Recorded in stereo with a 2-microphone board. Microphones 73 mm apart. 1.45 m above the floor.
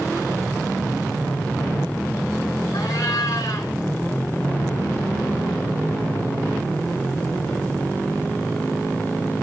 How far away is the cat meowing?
About 4.5 m.